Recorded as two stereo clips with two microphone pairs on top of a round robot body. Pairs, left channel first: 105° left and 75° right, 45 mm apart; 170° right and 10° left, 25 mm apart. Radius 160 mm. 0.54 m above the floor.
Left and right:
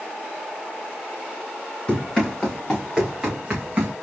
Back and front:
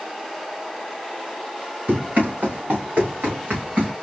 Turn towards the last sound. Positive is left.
turn(degrees=-15)